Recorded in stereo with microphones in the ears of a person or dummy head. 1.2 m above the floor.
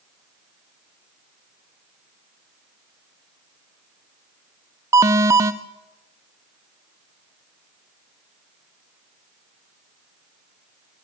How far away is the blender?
No blender in this recording.